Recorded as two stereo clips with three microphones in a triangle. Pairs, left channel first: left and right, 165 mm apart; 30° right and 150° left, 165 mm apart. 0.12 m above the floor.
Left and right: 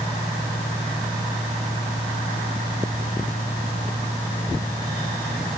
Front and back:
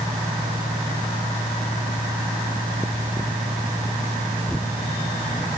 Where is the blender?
I don't hear a blender.